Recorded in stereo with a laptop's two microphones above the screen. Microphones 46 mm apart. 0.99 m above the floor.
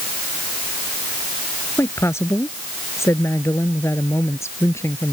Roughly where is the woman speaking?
Left.